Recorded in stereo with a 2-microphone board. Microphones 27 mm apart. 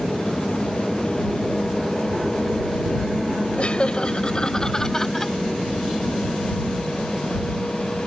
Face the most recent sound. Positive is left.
turn(degrees=15)  # may be behind; listen again after turning